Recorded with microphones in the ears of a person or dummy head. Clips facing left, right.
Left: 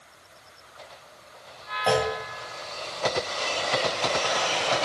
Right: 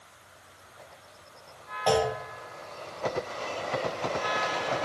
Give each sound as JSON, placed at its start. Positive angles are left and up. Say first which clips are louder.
{"t": 1.9, "sound": "a clunk", "louder": "left 1 dB", "side_deg": 15, "distance_m": 0.5}